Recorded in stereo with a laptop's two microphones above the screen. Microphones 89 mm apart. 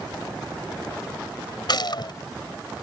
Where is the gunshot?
60° left (ahead or behind).